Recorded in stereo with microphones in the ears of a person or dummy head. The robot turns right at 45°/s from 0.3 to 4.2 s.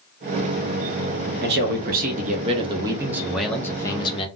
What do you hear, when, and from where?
1.4 s a man speaking: 90° right, 0.6 m; by 4.3 s 35° left, 0.6 m